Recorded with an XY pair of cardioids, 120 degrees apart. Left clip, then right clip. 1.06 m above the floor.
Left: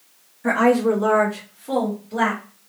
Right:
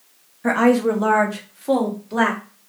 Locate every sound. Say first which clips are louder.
0.4 s a woman speaking: even; 25° right, 1.3 m; by 2.4 s 55° right, 2 m